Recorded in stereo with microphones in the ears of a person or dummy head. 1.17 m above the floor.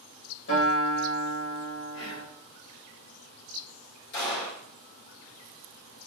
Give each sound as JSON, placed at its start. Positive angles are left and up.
{"t": 0.5, "sound": "a guitar", "side_deg": 65, "distance_m": 1.7}
{"t": 1.9, "sound": "whispering", "side_deg": 80, "distance_m": 1.1}
{"t": 4.1, "sound": "a gunshot", "side_deg": 60, "distance_m": 1.5}